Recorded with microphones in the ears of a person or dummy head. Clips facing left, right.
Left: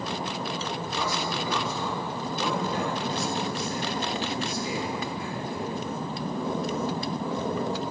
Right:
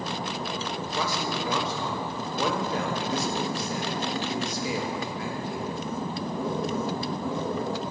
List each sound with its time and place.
0.9 s a man speaking: 60° right (ahead or behind), 1.6 m